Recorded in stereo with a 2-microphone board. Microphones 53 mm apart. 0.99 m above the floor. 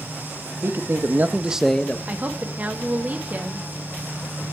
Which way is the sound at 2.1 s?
30° right (ahead or behind).